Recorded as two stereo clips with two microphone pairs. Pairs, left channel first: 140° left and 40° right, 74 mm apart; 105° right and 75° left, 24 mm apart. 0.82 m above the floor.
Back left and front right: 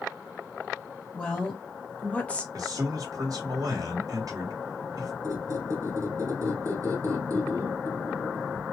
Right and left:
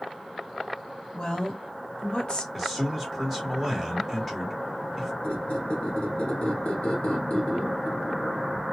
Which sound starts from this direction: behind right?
A woman speaking, at 1.1 s.